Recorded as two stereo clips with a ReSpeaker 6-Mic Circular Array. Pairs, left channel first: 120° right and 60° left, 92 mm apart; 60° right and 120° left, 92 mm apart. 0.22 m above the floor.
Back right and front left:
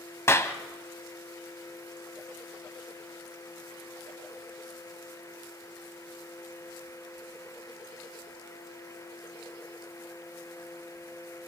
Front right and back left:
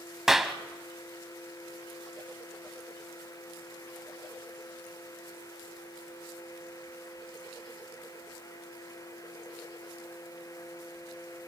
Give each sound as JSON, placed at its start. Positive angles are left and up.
{"t": 0.3, "sound": "a clap", "azimuth_deg": -155, "distance_m": 1.0}